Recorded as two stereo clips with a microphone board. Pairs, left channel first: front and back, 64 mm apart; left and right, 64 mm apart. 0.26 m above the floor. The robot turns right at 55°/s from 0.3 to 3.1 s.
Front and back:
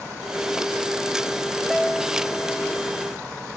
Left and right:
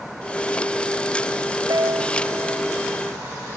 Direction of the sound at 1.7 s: 95° right.